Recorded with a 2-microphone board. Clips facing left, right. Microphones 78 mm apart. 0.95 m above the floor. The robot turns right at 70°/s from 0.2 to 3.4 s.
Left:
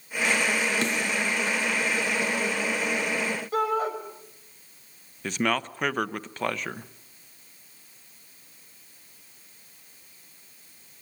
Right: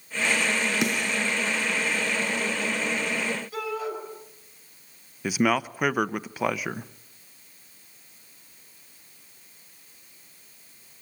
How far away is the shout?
About 6.5 m.